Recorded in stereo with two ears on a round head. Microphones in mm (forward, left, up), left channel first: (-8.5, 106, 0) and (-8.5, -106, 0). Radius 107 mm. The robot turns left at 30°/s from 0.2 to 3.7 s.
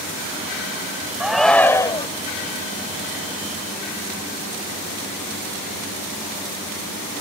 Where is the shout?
5° right (ahead or behind); by 2.1 s 20° left (ahead or behind).